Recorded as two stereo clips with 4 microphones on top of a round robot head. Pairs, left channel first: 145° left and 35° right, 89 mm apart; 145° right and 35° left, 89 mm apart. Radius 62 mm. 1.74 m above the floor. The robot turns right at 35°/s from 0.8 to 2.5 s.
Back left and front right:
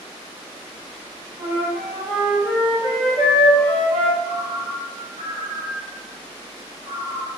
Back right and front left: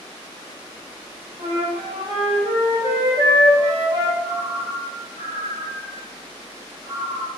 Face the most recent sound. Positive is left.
turn(degrees=120)